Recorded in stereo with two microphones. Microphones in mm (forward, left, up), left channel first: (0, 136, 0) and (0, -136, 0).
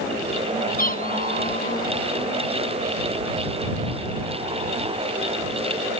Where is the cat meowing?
35° left (ahead or behind).